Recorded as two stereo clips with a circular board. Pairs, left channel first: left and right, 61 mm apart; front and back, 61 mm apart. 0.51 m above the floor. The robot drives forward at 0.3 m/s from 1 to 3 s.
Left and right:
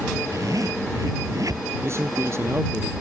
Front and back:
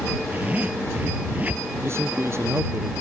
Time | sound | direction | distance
0.3 | a zipper | 115° right | ?
1.8 | a man speaking | 135° right | ?